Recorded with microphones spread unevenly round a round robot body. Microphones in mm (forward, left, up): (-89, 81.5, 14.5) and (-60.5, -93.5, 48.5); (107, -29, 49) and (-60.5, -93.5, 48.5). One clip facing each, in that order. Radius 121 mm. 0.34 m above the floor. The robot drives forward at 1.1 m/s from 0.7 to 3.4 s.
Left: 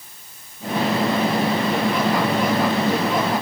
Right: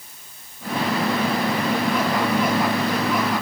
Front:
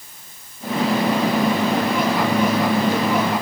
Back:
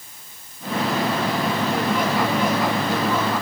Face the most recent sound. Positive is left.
No sound to turn to.